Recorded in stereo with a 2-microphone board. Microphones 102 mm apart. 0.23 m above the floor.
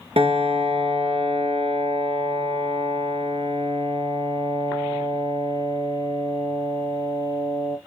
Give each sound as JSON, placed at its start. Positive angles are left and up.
{"t": 0.2, "sound": "a piano", "side_deg": -75, "distance_m": 1.6}